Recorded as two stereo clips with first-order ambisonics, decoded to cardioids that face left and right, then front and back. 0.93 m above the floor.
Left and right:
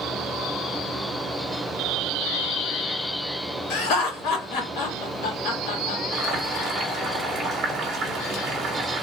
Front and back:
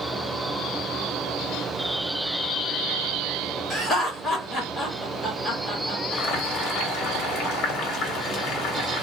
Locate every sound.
3.7 s laughter: 70° left, 1.7 m
6.1 s boiling: 30° right, 1.3 m